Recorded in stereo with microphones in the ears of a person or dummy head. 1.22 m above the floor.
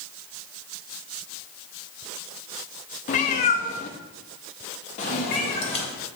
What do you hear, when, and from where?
3.1 s a cat meowing: 40° left (ahead or behind), 0.6 m; by 5.9 s 35° left (ahead or behind), 2.0 m